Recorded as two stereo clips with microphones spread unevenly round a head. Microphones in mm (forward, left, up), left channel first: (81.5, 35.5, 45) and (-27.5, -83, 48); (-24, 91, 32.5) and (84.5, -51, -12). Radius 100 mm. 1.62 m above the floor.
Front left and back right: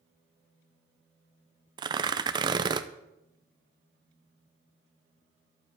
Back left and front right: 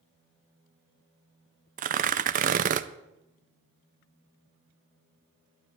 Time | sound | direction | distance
1.8 | tearing paper | 90° right | 0.5 m